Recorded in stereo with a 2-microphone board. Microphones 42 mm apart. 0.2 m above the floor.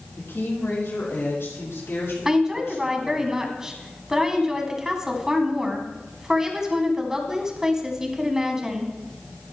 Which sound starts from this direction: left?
A woman speaking, at 0.2 s.